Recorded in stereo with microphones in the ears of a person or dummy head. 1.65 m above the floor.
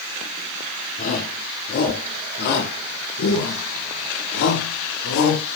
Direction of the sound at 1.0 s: 45° left (ahead or behind).